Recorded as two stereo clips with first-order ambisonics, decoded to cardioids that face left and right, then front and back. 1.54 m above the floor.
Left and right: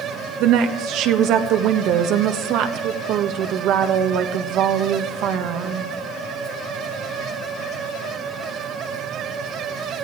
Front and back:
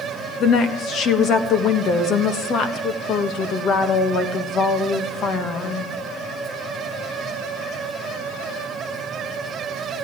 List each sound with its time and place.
0.4 s a woman speaking: 55° right, 1.4 m